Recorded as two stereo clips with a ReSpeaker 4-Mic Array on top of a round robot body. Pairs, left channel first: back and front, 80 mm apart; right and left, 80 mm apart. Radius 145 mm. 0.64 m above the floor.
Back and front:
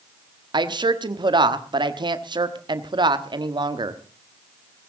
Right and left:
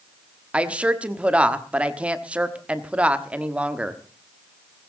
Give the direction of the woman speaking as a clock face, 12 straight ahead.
12 o'clock.